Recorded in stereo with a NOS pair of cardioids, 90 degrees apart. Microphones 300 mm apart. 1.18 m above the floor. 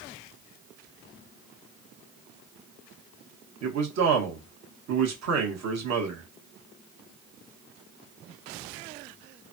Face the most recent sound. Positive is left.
turn(degrees=-60)